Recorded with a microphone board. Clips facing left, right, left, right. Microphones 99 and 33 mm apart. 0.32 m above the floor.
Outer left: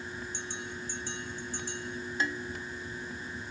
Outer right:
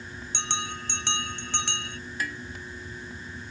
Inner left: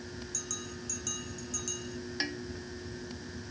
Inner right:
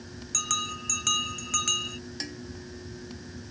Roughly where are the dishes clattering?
Left.